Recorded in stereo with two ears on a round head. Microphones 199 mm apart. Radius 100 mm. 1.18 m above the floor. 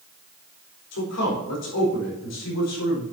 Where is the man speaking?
80° left, 4 m; by 3.0 s 85° left, 5 m.